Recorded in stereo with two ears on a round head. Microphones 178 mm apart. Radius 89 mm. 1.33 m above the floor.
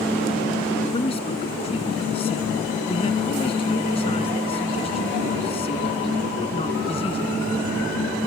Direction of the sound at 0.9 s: 30° left (ahead or behind).